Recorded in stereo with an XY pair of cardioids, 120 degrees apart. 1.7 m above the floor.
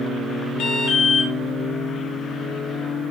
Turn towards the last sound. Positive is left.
turn(degrees=70)